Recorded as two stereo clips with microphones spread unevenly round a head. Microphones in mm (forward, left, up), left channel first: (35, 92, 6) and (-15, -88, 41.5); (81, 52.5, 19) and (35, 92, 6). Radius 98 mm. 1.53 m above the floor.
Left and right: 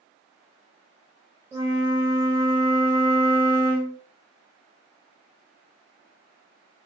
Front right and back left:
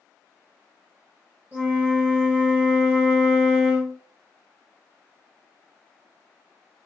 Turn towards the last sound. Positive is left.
turn(degrees=-150)